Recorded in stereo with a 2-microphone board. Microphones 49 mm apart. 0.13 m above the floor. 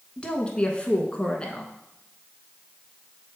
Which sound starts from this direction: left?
A woman speaking, at 0.2 s.